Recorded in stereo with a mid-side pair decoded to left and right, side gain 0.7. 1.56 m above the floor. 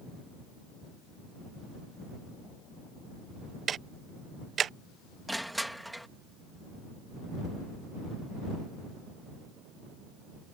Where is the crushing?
Straight ahead.